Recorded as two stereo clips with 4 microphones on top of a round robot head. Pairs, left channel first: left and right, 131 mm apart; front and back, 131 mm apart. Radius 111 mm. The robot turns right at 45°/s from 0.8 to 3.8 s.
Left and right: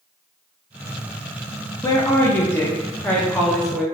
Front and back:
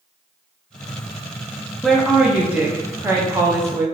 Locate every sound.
1.8 s a woman speaking: 90° left, 0.6 m; by 3.8 s straight behind, 0.6 m